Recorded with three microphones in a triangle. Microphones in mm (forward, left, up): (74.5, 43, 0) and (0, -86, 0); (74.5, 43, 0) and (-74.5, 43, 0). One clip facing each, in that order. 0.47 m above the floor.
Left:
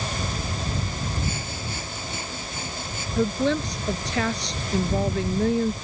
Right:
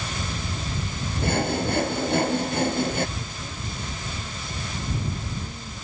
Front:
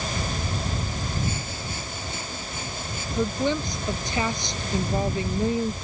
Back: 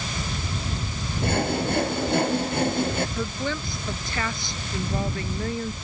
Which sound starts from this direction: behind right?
Sawing, at 1.2 s.